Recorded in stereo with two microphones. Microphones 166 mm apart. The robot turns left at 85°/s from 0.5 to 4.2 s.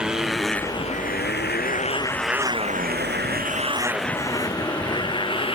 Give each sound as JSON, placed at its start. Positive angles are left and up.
{"t": 0.0, "sound": "a motorcycle", "side_deg": -5}